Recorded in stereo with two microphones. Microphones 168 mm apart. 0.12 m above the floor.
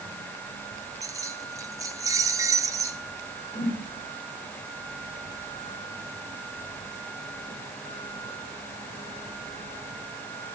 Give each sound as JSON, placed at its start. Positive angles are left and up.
{"t": 1.0, "sound": "keys jangling", "side_deg": -20, "distance_m": 1.2}
{"t": 3.5, "sound": "a whoosh", "side_deg": -25, "distance_m": 7.0}